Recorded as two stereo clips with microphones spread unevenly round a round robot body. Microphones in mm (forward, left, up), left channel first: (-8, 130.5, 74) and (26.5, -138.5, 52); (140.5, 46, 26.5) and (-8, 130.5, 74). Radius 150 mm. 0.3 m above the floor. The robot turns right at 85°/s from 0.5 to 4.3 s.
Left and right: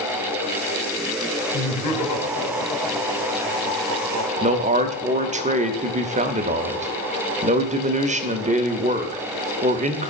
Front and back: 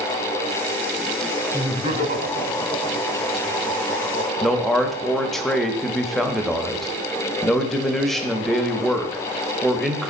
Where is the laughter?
80° left, 2 m; by 5.4 s 50° right, 2 m.